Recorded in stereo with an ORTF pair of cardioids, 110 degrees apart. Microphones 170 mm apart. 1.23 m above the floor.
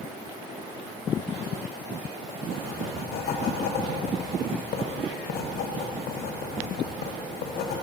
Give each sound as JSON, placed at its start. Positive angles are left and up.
{"t": 2.5, "sound": "writing", "azimuth_deg": 70, "distance_m": 0.6}